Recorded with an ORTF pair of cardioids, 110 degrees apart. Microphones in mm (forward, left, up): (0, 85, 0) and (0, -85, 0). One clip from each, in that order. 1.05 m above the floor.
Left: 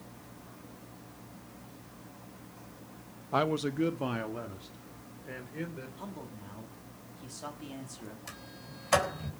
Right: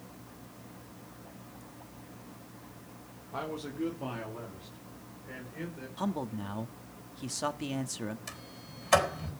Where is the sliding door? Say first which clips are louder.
Right 1 dB; 5° right, 4 m.